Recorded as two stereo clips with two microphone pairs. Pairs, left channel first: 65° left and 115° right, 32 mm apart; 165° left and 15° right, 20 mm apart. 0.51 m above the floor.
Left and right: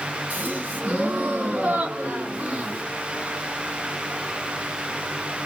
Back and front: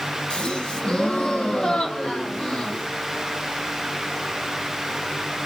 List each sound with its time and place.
0.3 s a gasp: 155° right, 2 m